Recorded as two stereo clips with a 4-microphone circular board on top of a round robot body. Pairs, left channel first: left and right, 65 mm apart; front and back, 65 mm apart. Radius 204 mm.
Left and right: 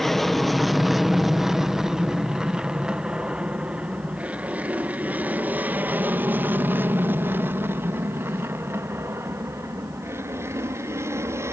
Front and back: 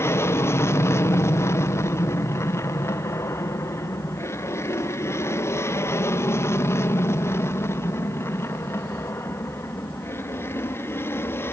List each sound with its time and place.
0.0 s an aircraft: 5° left; by 11.5 s 50° right